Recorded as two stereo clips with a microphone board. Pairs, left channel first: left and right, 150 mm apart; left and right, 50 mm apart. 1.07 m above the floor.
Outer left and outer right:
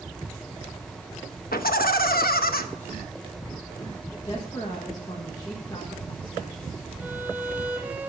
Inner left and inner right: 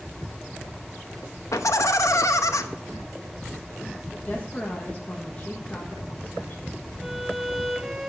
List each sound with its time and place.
1.5 s laughter: 85° left, 0.9 m
4.2 s a woman speaking: 30° left (ahead or behind), 1.3 m
7.0 s a violin: 10° right (ahead or behind), 1.0 m